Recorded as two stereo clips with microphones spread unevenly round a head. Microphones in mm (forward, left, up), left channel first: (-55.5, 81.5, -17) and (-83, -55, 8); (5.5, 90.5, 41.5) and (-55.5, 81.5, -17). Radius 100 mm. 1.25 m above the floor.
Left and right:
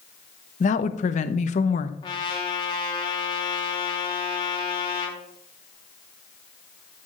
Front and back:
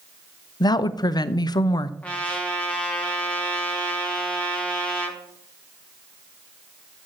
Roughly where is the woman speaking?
Ahead left.